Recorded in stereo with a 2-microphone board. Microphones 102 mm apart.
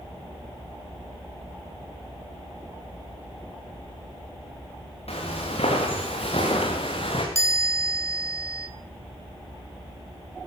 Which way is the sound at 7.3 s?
30° left (ahead or behind).